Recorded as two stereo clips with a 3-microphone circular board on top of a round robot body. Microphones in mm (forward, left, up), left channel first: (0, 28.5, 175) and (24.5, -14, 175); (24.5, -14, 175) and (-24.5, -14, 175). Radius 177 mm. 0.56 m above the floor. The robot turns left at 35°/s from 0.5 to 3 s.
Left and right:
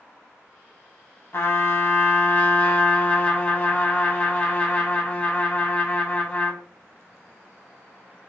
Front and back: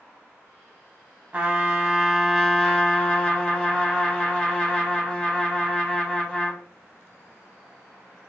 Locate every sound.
1.3 s a trumpet: 130° left, 1.3 m; by 6.6 s 70° left, 1.3 m